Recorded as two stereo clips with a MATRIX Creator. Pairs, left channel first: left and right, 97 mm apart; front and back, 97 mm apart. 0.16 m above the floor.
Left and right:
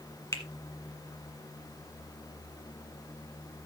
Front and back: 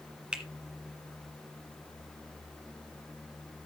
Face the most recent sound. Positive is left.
turn(degrees=110)